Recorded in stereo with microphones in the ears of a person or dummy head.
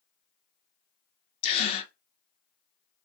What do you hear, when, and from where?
1.4 s a gasp: 30° left (ahead or behind), 0.9 m